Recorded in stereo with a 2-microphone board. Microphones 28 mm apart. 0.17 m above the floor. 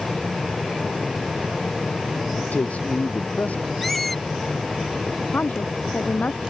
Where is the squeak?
5° left (ahead or behind).